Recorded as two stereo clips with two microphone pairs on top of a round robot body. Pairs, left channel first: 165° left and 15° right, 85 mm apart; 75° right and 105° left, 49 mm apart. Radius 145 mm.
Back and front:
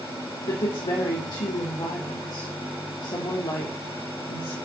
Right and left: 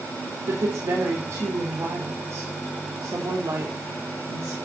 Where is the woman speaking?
125° left, 3 m.